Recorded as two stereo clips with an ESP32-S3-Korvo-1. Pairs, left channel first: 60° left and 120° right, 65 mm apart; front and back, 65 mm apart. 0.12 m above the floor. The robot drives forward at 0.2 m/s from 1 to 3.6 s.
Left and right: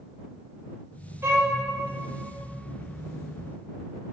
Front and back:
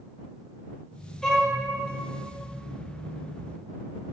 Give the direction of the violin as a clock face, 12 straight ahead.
3 o'clock.